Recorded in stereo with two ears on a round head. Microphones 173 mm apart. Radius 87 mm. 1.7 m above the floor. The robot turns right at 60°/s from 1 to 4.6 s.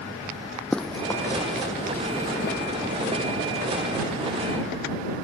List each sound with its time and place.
0.7 s running footsteps: 5° left (ahead or behind); by 2.6 s 65° left (ahead or behind)